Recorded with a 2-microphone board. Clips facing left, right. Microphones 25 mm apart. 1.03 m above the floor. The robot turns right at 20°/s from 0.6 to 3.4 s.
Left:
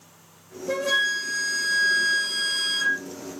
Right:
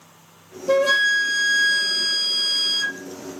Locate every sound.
0.7 s a flute: 40° right, 1.2 m; by 3.0 s 5° left, 1.2 m